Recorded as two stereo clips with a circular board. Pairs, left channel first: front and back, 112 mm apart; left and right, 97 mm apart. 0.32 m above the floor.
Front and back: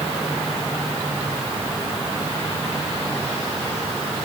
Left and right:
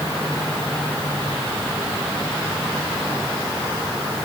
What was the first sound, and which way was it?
Only background noise.